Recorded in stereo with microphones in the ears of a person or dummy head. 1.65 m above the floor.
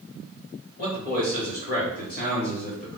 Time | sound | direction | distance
0.8 | a man speaking | 40° left (ahead or behind) | 1.1 m